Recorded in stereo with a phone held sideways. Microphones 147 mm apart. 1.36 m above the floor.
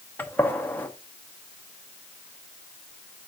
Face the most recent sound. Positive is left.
turn(degrees=10)  # may be behind; listen again after turning